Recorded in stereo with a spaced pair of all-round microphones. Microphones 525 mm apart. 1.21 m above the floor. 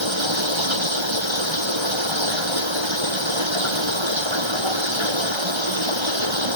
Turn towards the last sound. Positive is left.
turn(degrees=-60)  # may be behind; listen again after turning